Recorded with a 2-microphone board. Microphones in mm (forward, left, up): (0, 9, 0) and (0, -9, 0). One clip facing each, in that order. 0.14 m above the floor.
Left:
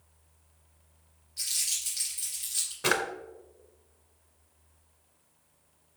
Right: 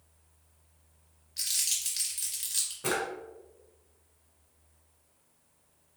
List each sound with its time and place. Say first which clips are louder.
1.4 s crumpling: right 1 dB; 50° right (ahead or behind), 2.0 m
2.8 s a drawer: left 5 dB; 45° left (ahead or behind), 0.5 m